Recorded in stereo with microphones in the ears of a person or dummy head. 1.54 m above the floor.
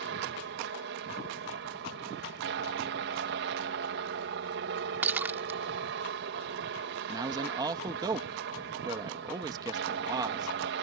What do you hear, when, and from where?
0.0 s a helicopter: 60° right (ahead or behind)
5.0 s breaking glass: 10° right (ahead or behind)
7.1 s a man speaking: 20° right (ahead or behind)